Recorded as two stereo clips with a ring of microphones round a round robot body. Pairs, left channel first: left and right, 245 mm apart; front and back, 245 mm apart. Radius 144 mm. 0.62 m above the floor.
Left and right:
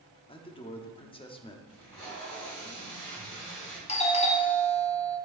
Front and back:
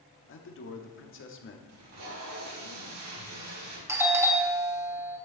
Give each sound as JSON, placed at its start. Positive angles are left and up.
{"t": 0.3, "sound": "a man speaking", "azimuth_deg": 25, "distance_m": 1.4}
{"t": 1.7, "sound": "tape being pulled", "azimuth_deg": 165, "distance_m": 4.0}
{"t": 3.9, "sound": "a doorbell", "azimuth_deg": 110, "distance_m": 1.3}